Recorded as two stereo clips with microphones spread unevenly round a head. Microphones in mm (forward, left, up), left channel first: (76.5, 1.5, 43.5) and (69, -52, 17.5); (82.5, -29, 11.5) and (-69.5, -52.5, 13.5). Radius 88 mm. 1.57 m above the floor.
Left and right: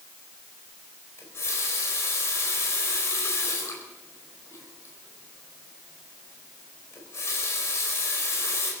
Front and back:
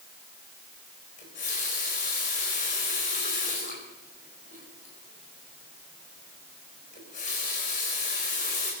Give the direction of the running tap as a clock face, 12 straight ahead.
10 o'clock.